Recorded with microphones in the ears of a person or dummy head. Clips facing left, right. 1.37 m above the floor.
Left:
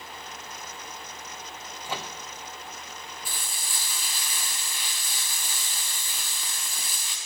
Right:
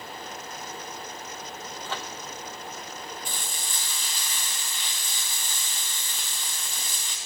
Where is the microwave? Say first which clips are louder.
Left 2 dB; 15° left (ahead or behind), 0.6 m.